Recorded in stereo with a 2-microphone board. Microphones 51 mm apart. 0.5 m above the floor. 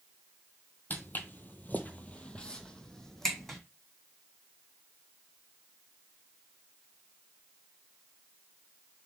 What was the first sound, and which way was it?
Footsteps, 35° left (ahead or behind).